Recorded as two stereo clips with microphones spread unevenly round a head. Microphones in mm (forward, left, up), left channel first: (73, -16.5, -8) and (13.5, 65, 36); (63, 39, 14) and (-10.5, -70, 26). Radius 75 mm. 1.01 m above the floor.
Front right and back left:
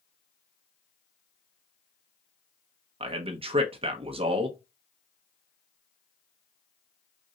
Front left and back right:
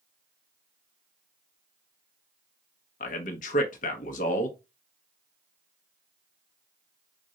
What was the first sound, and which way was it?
A man speaking, 90° left.